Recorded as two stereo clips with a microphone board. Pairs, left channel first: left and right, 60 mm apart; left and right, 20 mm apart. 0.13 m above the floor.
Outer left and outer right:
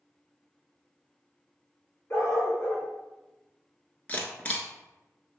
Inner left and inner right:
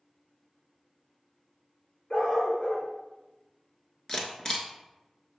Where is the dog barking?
55° left (ahead or behind), 2 m.